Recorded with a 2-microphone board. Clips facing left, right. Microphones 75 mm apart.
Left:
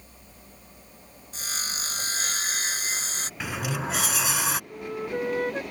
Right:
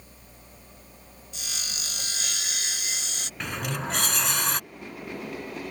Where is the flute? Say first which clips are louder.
Left 7 dB; 75° left (ahead or behind).